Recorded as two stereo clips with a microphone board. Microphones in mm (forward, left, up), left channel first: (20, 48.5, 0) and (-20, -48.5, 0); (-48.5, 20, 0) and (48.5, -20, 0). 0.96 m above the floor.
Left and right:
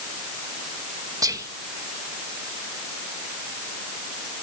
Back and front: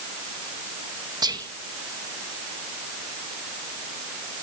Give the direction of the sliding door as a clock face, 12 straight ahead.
No sliding door in this recording.